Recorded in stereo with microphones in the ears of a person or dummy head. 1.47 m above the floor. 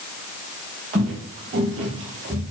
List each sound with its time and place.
0.9 s footsteps: 20° right (ahead or behind), 1.5 m; by 2.4 s 35° right (ahead or behind), 2 m